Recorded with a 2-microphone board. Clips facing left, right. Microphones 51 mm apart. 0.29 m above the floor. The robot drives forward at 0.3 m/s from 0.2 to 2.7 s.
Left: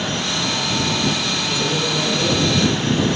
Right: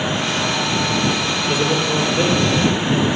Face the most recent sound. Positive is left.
turn(degrees=-40)  # may be behind; listen again after turning